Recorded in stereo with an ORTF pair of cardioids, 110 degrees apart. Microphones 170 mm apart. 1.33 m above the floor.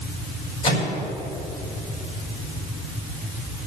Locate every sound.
0.6 s a microwave: 30° left, 5.5 m